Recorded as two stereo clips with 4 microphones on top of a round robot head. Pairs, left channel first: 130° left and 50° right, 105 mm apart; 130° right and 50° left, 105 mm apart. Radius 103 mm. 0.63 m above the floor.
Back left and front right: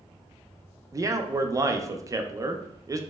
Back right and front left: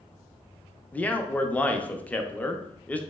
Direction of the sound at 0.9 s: 65° right.